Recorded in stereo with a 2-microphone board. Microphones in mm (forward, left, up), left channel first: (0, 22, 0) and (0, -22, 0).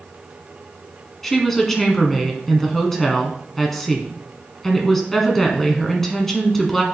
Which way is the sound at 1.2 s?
5° left (ahead or behind).